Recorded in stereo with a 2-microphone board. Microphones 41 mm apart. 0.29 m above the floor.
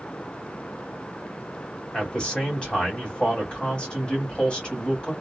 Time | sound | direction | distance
1.9 | a man speaking | 25° left (ahead or behind) | 1.6 m